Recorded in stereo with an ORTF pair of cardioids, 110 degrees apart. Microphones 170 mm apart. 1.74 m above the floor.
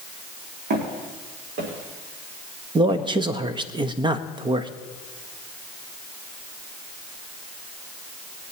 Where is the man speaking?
30° right, 0.9 m.